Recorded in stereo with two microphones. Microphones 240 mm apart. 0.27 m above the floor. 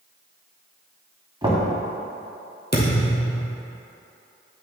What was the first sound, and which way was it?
Knocking, 20° right (ahead or behind).